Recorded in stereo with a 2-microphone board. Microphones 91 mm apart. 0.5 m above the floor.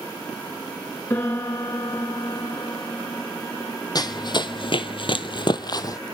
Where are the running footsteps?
45° left (ahead or behind), 1.3 m; by 6.0 s 40° left (ahead or behind), 1.2 m.